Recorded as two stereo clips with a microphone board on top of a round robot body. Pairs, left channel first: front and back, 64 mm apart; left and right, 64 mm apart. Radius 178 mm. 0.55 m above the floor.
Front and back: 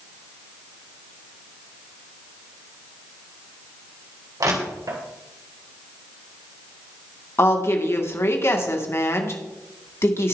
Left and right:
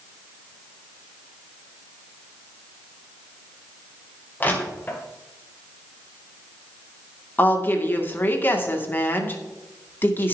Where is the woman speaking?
40° left, 2.5 m.